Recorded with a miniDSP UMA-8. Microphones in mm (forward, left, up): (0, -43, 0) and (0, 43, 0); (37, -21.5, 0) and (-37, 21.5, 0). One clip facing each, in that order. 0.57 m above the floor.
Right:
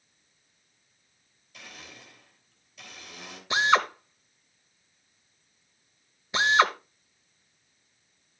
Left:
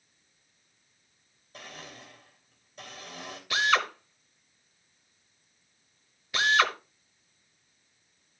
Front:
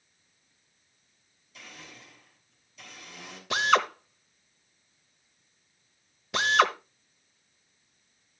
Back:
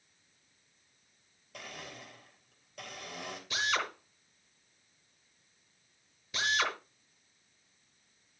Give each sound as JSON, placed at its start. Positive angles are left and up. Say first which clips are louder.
{"t": 1.5, "sound": "a blender", "louder": "left 3 dB, back 3 dB", "azimuth_deg": 135, "distance_m": 3.0}
{"t": 3.5, "sound": "a drill", "louder": "right 3 dB, front 10 dB", "azimuth_deg": -25, "distance_m": 1.0}